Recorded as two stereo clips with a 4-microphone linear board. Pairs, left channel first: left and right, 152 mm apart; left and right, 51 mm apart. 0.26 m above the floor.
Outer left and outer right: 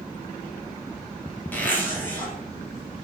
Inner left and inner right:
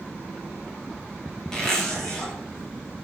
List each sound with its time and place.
1.5 s a zipper: 10° left (ahead or behind), 2.5 m